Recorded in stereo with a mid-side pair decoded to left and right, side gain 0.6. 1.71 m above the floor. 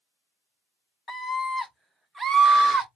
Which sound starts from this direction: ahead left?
A scream, at 1.1 s.